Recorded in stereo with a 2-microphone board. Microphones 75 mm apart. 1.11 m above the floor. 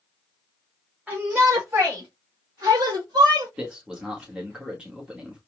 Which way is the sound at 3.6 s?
10° right (ahead or behind).